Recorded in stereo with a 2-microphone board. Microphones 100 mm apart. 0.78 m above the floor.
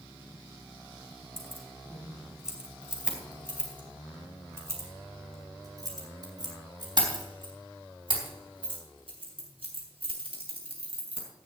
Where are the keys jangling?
Centre (ahead or behind), 4.5 m; by 11.3 s 70° right (ahead or behind), 6 m.